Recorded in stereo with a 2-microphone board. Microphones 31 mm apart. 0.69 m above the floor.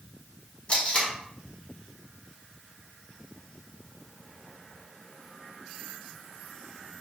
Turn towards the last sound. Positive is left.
turn(degrees=35)  # may be behind; listen again after turning